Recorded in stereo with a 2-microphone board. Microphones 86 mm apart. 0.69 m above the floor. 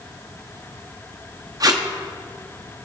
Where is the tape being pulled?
45° right (ahead or behind), 0.8 m.